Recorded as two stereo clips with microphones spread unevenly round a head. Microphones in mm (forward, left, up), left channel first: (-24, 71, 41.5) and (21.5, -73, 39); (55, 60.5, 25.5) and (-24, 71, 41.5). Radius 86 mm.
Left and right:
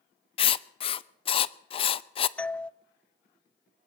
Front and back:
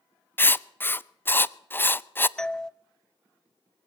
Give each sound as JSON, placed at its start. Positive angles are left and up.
{"t": 0.4, "sound": "writing", "azimuth_deg": 55, "distance_m": 0.7}
{"t": 2.4, "sound": "a doorbell", "azimuth_deg": 30, "distance_m": 0.7}